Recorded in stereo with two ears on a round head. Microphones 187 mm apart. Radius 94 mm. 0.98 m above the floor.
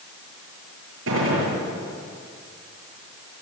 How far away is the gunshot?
About 8 m.